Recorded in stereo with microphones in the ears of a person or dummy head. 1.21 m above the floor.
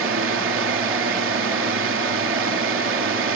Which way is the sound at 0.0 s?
60° right (ahead or behind).